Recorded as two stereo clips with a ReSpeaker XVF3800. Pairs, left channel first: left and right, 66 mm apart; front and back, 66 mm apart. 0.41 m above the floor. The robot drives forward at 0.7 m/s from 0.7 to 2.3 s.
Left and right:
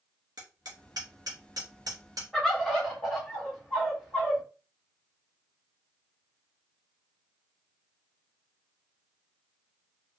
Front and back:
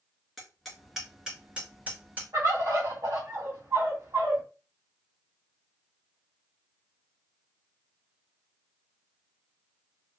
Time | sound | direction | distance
0.4 | hammering | 90° right | 2 m
2.3 | a bird | 175° left | 1.7 m